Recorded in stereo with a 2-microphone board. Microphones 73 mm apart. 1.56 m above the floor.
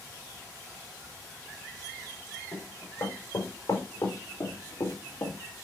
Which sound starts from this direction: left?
Running footsteps, at 2.5 s.